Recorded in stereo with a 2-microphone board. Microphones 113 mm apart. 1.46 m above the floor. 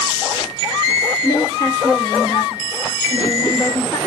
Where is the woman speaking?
30° left (ahead or behind), 1.0 m.